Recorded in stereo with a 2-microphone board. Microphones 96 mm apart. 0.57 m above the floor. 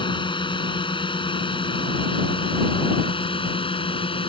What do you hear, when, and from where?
0.0 s a drone: 60° left (ahead or behind); by 4.3 s 70° left (ahead or behind)